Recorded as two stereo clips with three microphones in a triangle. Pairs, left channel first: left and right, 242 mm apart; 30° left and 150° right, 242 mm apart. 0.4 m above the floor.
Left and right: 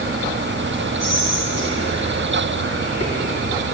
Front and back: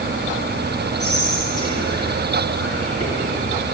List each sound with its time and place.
1.0 s whispering: 60° right, 6 m